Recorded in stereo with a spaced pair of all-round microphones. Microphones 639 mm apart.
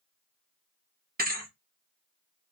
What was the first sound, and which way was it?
A thud, 15° right (ahead or behind).